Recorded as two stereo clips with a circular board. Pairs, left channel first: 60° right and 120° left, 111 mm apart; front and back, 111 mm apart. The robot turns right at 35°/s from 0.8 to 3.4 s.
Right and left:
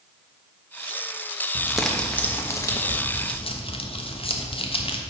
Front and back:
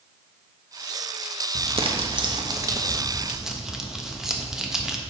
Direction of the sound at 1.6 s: 160° right.